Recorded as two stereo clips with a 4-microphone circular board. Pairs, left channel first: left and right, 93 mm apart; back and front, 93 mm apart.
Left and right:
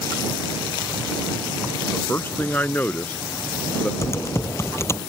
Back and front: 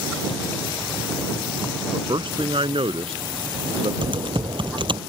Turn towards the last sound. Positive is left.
turn(degrees=30)